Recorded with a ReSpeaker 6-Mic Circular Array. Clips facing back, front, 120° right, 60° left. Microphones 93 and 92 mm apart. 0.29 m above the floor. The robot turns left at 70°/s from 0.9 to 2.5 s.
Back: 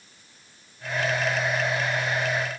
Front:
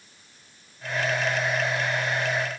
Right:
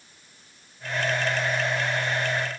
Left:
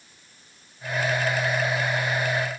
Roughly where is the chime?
No chime in this recording.